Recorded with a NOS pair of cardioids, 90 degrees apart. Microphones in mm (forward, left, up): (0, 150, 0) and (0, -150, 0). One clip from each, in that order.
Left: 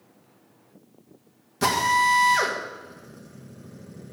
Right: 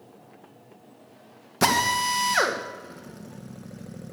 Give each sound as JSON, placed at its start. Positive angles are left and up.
{"t": 1.6, "sound": "a drill", "azimuth_deg": -45, "distance_m": 2.0}